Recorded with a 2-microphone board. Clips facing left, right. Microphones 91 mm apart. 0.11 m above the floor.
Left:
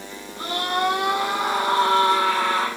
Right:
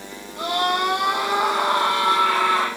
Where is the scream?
60° right (ahead or behind), 4 m.